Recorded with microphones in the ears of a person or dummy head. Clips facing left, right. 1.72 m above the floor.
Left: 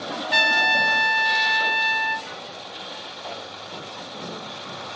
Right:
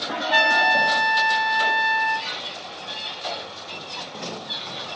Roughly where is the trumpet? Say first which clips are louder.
Right 5 dB; left.